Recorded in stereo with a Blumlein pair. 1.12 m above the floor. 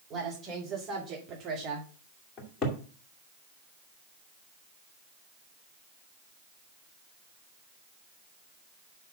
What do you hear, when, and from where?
0.1 s a woman speaking: 25° right, 4 m; by 1.9 s 40° right, 1.6 m
2.4 s a cupboard door: 25° left, 2 m